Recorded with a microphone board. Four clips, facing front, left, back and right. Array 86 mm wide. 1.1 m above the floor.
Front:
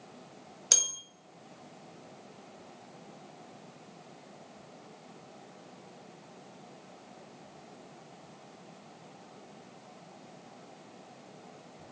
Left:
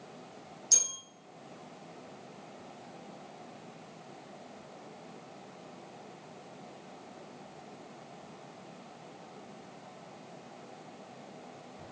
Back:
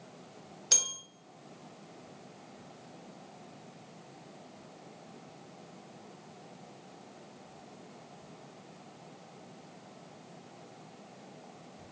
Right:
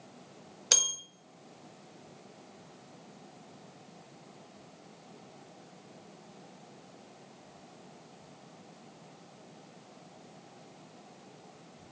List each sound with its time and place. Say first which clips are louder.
0.7 s a bell: right 11 dB, even; 80° right, 1.4 m